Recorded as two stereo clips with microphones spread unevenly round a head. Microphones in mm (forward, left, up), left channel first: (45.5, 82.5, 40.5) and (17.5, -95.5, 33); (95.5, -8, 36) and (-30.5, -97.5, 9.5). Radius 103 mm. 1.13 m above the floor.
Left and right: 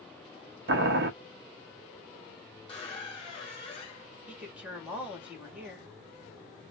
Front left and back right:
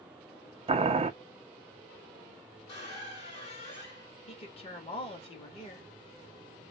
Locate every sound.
0.7 s boiling: 95° right, 0.6 m
2.7 s a squeak: 35° left, 1.1 m
4.3 s a woman speaking: 15° right, 1.6 m